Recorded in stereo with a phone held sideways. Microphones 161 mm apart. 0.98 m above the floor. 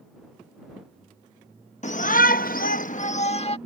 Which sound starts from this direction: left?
A shout, at 1.8 s.